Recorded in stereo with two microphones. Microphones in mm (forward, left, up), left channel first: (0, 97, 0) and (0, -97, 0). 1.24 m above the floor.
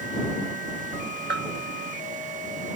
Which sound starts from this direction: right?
A bell, at 1.3 s.